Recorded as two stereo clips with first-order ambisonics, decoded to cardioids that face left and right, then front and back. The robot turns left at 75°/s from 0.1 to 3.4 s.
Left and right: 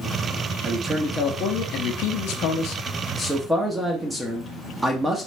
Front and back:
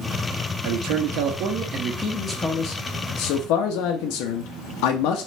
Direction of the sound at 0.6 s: 160° right.